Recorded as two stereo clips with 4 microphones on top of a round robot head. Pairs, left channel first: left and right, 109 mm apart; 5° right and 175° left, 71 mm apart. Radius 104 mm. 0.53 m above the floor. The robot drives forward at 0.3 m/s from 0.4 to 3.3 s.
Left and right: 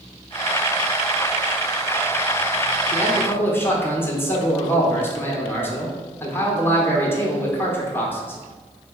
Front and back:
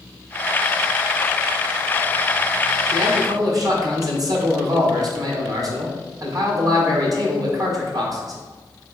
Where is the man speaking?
155° left, 1.5 m; by 8.4 s 160° left, 1.5 m.